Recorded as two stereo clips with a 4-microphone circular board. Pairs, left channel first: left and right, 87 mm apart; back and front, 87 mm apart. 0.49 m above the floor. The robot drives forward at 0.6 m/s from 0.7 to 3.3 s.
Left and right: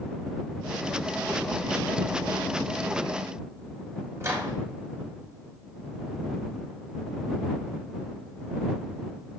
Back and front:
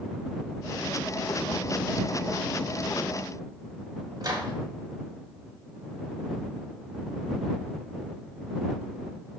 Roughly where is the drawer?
No drawer in this recording.